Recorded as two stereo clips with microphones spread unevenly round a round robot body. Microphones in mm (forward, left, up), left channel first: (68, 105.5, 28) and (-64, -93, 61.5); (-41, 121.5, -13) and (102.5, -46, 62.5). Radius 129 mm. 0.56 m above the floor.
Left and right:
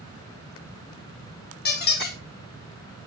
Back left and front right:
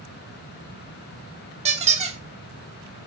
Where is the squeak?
20° left, 0.8 m.